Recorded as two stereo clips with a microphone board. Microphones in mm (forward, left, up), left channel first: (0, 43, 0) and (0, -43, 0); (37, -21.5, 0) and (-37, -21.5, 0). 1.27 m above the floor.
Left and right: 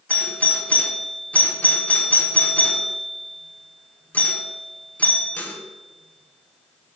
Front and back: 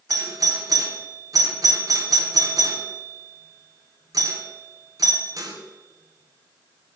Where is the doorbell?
160° left, 1.4 m.